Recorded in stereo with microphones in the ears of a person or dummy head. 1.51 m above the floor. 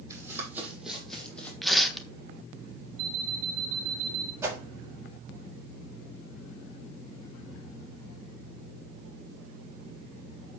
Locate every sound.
0.1 s running footsteps: 15° right (ahead or behind), 4 m; by 1.5 s 10° left (ahead or behind), 3.5 m
1.6 s tearing paper: centre (ahead or behind), 1.4 m
3.0 s an alarm clock: 55° right (ahead or behind), 1.4 m
4.4 s a whoosh: 10° right (ahead or behind), 4 m